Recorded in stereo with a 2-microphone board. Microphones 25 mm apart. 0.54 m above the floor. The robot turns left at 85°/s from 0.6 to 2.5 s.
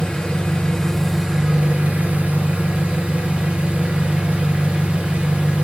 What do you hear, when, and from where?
0.0 s an engine running: 45° left, 3.5 m; by 5.7 s 120° right, 3.5 m